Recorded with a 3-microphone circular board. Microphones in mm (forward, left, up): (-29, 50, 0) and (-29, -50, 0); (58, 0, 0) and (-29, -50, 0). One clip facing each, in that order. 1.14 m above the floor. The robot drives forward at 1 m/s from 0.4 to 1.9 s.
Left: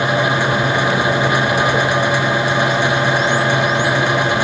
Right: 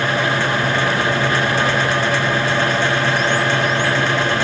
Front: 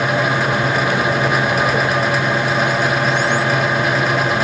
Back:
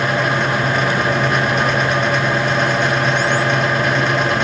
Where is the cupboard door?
I don't hear a cupboard door.